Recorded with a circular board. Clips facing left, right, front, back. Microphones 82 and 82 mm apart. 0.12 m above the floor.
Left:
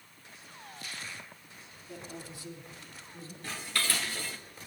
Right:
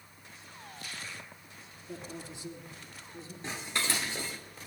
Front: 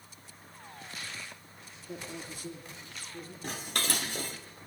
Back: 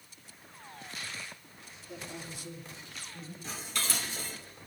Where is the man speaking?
35° right, 3 m; by 3.3 s 25° right, 4 m.